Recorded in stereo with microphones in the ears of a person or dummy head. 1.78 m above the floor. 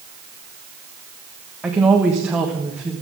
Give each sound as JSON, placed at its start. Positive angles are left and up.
{"t": 1.6, "sound": "a woman speaking", "side_deg": -10, "distance_m": 1.4}